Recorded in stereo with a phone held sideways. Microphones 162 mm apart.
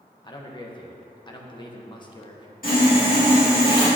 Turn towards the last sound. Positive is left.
turn(degrees=60)  # may be behind; listen again after turning